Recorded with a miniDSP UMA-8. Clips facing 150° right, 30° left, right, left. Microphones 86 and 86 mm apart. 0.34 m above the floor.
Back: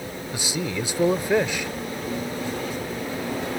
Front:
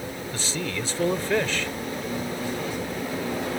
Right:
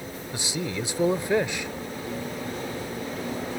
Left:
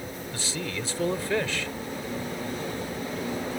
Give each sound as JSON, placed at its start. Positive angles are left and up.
{"t": 0.3, "sound": "a man speaking", "azimuth_deg": -110}